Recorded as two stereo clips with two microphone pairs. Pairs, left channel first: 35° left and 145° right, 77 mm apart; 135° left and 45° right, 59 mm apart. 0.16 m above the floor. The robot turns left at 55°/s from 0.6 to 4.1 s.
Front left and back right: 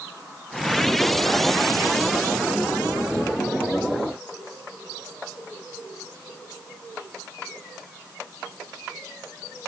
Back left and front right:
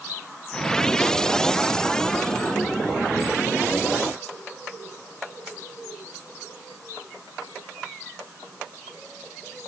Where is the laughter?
No laughter in this recording.